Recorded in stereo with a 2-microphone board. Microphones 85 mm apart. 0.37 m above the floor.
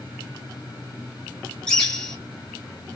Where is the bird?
10° left (ahead or behind), 1.4 m.